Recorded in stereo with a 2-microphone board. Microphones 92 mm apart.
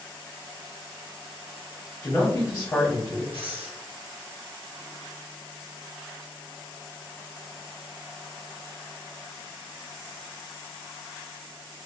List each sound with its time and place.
2.0 s a man speaking: 20° left (ahead or behind), 1.1 m
3.3 s breathing: 70° right (ahead or behind), 1.0 m